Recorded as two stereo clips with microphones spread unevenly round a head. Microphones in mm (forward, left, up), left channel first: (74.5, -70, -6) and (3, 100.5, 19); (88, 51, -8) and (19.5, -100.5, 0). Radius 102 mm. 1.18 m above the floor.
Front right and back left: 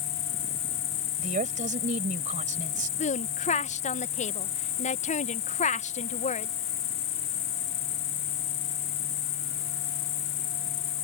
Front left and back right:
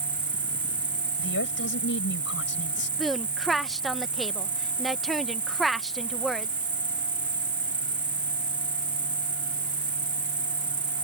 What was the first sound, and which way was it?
An insect, 35° right.